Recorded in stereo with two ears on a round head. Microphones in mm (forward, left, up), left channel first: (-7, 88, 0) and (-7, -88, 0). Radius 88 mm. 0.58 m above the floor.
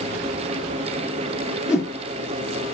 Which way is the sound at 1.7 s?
5° right (ahead or behind).